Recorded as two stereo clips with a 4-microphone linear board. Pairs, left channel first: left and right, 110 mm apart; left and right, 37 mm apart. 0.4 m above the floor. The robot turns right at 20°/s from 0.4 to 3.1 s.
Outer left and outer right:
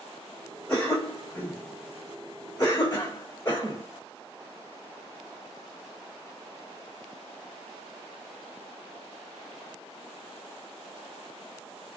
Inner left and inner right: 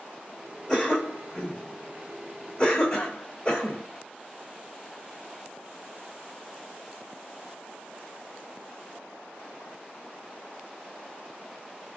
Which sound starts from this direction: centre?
A cough, at 0.7 s.